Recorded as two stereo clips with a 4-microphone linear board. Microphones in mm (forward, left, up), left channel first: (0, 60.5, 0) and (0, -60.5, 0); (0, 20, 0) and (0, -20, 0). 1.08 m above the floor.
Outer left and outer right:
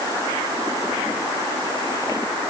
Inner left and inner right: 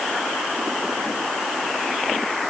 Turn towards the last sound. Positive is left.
No sound to turn to.